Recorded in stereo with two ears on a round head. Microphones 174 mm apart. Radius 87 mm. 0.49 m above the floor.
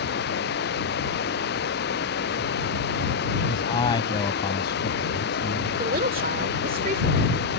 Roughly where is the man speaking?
Left.